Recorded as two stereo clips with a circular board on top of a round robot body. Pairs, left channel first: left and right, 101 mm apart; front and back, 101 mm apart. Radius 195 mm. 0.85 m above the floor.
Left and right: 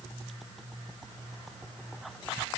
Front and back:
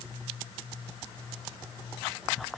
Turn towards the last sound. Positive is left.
No sound to turn to.